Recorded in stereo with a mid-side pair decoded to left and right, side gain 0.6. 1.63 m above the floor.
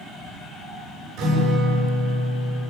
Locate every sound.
1.2 s a guitar: 65° right, 9 m